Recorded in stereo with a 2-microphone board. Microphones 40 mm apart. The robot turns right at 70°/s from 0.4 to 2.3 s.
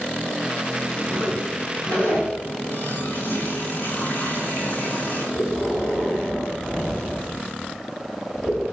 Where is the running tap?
55° left (ahead or behind), 4.5 m.